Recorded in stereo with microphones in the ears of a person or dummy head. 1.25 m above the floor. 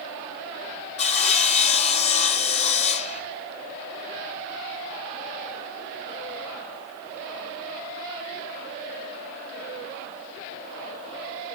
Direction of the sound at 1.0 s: 35° left (ahead or behind).